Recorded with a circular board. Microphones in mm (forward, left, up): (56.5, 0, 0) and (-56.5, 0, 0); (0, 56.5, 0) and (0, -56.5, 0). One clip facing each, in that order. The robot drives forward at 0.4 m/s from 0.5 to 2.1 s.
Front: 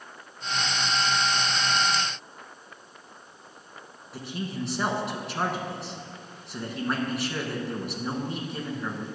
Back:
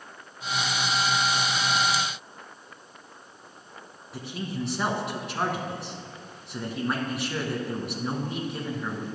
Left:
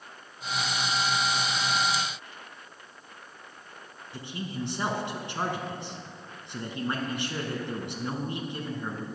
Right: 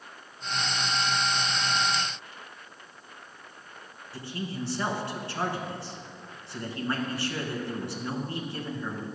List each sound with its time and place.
4.1 s a man speaking: 90° left, 1.1 m